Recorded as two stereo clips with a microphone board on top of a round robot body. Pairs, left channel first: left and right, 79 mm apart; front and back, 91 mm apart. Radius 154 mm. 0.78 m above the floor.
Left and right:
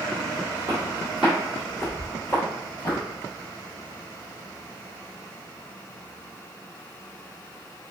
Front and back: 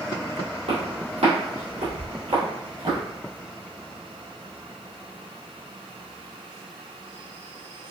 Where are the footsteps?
160° right, 1.7 m; by 3.0 s 140° left, 1.4 m.